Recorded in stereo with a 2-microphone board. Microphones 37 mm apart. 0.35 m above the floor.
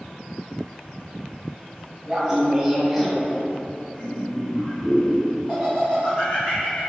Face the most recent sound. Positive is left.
turn(degrees=45)  # may be behind; listen again after turning